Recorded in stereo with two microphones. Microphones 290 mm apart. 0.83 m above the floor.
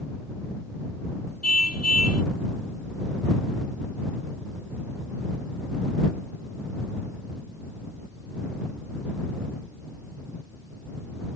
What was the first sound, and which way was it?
A car horn, 55° left (ahead or behind).